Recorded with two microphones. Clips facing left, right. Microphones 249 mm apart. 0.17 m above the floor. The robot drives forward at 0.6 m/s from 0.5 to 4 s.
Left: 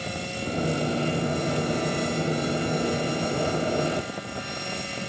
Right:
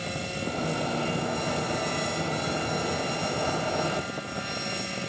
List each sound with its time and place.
Only background noise.